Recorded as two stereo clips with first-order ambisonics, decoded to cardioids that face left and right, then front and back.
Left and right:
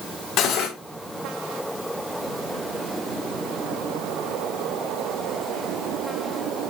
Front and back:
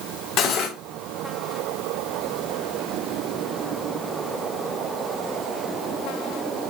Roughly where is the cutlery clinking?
Ahead left.